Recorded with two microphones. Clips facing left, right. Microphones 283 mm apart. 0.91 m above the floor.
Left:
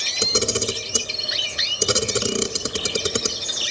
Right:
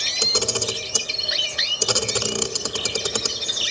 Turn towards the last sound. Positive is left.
turn(degrees=25)  # may be behind; listen again after turning